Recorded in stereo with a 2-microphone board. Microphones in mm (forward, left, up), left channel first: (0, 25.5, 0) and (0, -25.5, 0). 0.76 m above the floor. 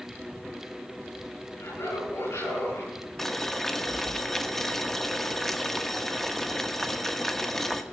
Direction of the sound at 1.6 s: 65° left (ahead or behind).